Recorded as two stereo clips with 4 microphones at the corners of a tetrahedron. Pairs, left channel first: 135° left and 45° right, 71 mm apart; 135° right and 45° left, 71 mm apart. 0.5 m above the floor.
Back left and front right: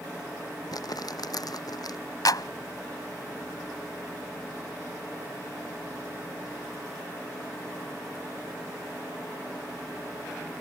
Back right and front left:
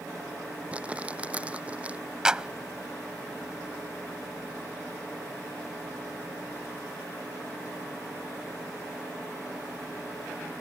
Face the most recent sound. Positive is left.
turn(degrees=120)